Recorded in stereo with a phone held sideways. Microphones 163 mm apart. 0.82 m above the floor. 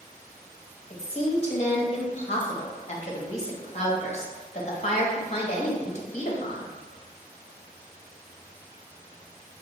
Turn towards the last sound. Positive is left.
turn(degrees=45)  # may be behind; listen again after turning